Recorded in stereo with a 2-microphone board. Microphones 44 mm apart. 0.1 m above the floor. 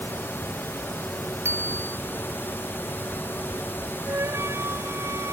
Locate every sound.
1.4 s a bicycle bell: 65° right (ahead or behind)
4.1 s a flute: 80° right